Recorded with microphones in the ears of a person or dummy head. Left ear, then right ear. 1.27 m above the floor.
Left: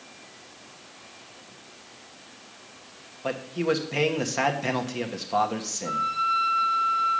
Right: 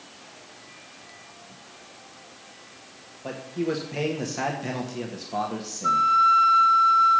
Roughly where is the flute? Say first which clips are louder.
Right 8 dB; right.